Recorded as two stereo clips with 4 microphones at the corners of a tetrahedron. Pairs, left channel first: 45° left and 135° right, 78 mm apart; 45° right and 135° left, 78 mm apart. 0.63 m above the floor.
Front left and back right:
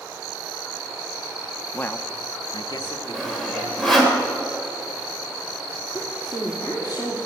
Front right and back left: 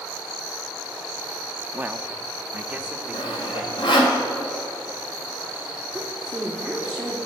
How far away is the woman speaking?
About 1.9 m.